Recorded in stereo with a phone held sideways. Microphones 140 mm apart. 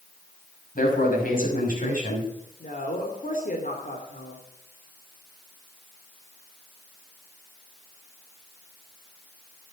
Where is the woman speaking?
75° left (ahead or behind), 2.5 m.